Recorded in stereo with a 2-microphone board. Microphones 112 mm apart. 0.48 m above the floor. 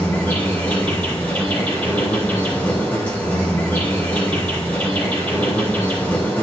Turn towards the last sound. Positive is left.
turn(degrees=15)  # may be behind; listen again after turning